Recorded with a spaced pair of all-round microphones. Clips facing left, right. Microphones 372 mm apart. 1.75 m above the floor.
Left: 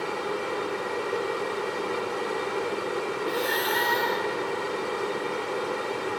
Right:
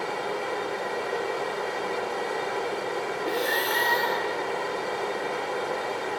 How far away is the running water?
About 2.5 m.